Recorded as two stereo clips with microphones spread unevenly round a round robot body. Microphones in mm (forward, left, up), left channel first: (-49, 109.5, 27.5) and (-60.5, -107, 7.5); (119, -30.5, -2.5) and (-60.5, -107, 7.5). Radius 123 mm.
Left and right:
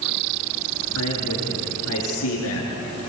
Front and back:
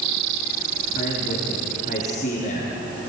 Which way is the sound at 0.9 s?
85° left.